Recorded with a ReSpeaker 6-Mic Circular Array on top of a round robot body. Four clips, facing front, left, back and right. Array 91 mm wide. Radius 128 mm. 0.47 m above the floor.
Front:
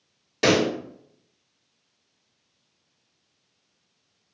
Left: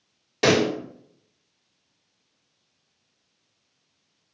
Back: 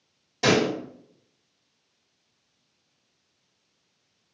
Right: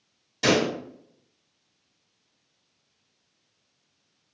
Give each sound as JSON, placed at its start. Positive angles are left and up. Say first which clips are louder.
{"t": 0.4, "sound": "a pop", "louder": "left 3 dB, front 1 dB", "azimuth_deg": 55, "distance_m": 1.5}